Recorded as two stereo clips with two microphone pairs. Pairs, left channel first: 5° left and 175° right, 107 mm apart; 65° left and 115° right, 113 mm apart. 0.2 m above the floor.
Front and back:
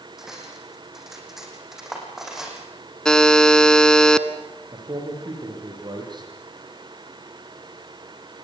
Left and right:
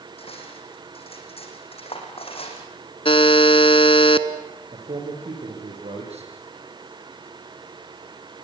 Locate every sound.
0.2 s cutlery clinking: 95° left, 5.5 m
3.0 s a buzzer: 85° left, 1.2 m
4.7 s a man speaking: 130° right, 9.5 m